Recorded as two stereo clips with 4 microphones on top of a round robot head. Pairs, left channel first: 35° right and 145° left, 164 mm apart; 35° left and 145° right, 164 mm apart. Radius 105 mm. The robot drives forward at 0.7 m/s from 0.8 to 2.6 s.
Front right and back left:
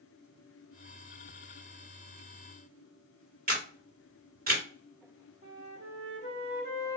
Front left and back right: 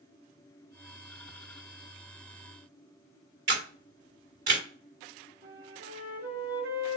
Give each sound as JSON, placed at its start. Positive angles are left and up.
{"t": 3.5, "sound": "a camera shutter", "azimuth_deg": 180, "distance_m": 1.7}
{"t": 5.4, "sound": "a flute", "azimuth_deg": -165, "distance_m": 1.1}